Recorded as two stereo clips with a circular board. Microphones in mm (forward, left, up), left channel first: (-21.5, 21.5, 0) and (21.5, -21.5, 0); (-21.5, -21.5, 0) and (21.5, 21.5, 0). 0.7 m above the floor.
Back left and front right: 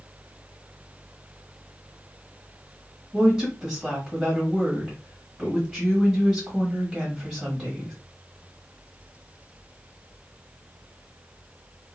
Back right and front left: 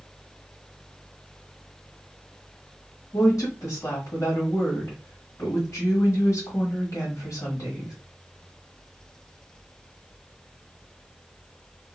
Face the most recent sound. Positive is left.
turn(degrees=-110)